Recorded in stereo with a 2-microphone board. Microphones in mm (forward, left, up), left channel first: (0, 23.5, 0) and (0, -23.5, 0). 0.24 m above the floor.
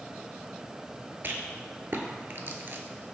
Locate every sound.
1.2 s a rattle: 55° right (ahead or behind), 0.6 m